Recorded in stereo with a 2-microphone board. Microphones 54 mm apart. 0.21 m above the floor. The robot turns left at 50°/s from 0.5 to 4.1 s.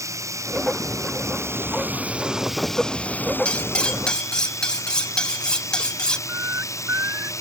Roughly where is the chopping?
I don't hear chopping.